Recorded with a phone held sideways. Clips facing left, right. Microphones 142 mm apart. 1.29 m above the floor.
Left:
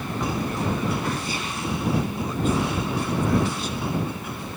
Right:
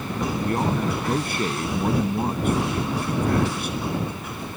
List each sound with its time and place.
0.4 s a man speaking: 65° right (ahead or behind)